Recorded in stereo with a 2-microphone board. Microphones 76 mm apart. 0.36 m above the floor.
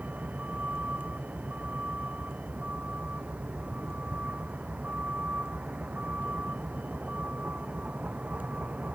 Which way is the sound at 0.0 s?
20° right (ahead or behind).